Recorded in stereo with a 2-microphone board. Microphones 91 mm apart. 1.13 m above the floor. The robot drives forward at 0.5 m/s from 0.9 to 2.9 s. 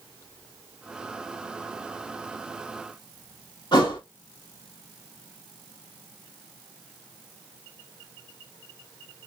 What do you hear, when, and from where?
3.7 s a thud: 55° left (ahead or behind), 2.5 m